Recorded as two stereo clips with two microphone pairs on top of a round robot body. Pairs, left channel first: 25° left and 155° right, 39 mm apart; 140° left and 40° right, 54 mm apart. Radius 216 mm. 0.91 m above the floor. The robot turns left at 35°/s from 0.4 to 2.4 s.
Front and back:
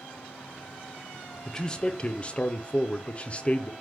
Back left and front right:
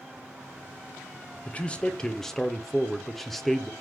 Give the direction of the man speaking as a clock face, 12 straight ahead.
9 o'clock.